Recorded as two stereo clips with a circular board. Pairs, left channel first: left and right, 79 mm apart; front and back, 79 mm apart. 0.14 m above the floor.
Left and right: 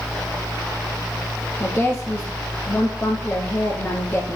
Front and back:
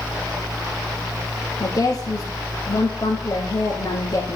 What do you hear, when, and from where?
1.6 s a woman speaking: 25° left, 2 m